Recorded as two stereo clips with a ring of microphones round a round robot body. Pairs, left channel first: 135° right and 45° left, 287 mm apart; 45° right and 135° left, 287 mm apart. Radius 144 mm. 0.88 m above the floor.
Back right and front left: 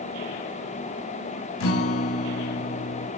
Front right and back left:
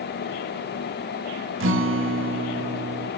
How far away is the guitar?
About 1.4 m.